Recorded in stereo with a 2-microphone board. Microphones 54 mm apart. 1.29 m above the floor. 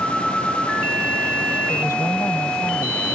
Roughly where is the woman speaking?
Left.